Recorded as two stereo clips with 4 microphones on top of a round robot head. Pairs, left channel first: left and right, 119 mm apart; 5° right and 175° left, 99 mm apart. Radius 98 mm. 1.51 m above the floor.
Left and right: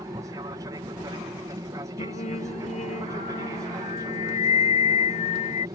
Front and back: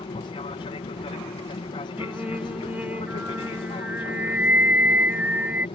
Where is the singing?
105° left.